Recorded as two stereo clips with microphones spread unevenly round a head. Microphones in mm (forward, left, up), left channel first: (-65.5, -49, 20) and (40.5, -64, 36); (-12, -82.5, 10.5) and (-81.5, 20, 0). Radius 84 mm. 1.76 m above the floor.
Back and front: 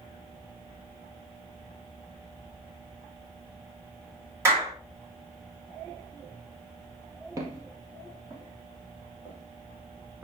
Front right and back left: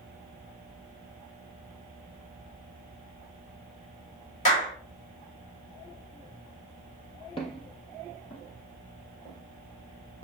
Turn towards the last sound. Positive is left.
turn(degrees=-75)